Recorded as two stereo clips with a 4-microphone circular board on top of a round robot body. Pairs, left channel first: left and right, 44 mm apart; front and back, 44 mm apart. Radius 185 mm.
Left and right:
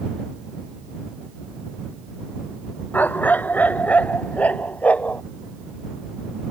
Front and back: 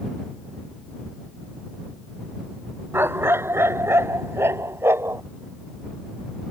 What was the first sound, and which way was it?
A dog barking, 145° left.